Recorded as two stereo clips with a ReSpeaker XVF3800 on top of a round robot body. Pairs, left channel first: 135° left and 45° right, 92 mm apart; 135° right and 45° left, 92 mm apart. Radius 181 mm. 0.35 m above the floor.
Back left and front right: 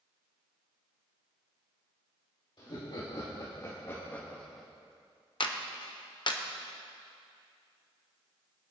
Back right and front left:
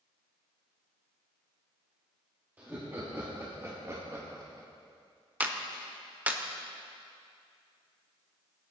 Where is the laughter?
115° left, 2.5 m; by 4.7 s 45° left, 1.5 m.